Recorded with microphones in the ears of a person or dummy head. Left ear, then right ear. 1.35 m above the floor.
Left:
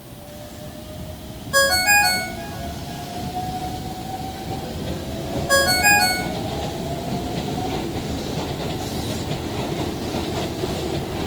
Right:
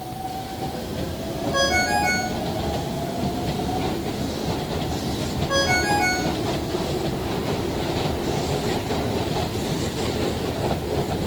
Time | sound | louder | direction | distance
1.5 | a ringtone | left 5 dB | 55° left (ahead or behind) | 1.3 m